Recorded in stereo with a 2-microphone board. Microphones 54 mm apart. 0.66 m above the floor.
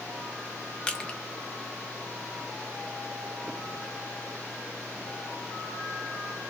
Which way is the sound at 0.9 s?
25° left (ahead or behind).